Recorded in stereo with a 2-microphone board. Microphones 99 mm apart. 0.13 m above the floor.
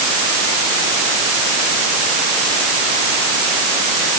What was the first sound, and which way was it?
Only background noise.